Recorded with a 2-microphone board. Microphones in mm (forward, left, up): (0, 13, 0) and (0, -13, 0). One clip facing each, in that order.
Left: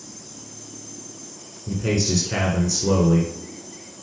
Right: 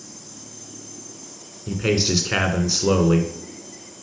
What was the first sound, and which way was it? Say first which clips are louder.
A man speaking: right 2 dB; 50° right (ahead or behind).